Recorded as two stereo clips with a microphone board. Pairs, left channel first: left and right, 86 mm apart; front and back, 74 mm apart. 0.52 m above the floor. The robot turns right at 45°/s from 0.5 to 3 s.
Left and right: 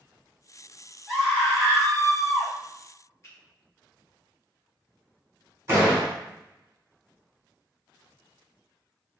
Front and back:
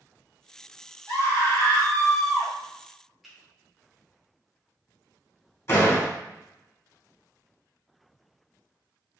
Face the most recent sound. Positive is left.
turn(degrees=-40)